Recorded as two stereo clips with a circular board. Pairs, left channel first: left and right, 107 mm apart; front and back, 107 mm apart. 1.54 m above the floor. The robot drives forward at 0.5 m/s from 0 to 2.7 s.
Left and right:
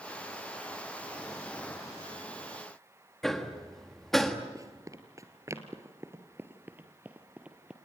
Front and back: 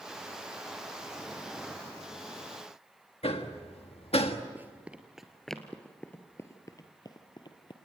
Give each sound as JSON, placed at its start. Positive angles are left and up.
{"t": 3.2, "sound": "hammering", "azimuth_deg": 5, "distance_m": 1.6}
{"t": 4.5, "sound": "running footsteps", "azimuth_deg": -120, "distance_m": 1.8}